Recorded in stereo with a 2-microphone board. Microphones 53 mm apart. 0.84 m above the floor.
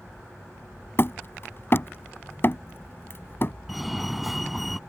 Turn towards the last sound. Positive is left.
turn(degrees=0)  # may be behind; listen again after turning